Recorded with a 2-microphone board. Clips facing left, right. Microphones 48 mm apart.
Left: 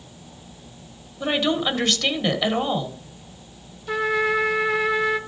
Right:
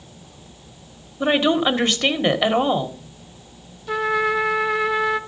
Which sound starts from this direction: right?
A woman speaking, at 1.2 s.